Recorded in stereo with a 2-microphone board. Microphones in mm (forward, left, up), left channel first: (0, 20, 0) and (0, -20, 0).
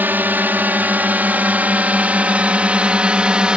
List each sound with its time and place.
0.0 s a drone: 50° right (ahead or behind); by 3.6 s 25° right (ahead or behind)